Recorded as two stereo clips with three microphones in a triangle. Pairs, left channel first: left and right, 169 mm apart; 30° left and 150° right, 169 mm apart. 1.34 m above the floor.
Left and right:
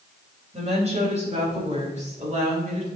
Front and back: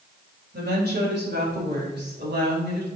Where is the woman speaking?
140° right, 2.5 m; by 2.9 s 135° right, 4.5 m.